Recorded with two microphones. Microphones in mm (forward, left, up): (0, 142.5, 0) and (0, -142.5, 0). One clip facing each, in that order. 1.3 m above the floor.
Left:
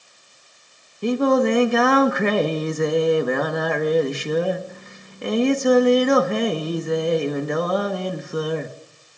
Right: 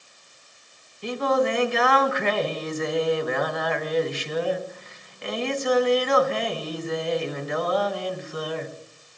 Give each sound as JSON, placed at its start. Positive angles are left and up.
{"t": 1.0, "sound": "singing", "side_deg": 50, "distance_m": 1.3}